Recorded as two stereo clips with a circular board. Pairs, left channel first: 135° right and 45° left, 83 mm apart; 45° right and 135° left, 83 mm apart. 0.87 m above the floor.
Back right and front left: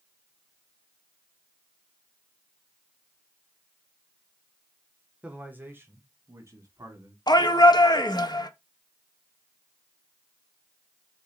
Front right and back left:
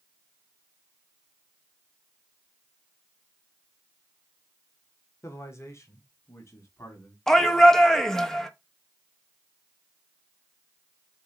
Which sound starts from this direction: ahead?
A man speaking, at 5.2 s.